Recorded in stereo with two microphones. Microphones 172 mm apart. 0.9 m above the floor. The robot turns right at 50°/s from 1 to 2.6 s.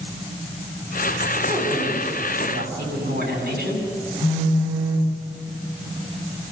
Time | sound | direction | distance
1.5 | a woman speaking | 165° right | 8.5 m
4.2 | a phone buzzing | 10° right (ahead or behind) | 6 m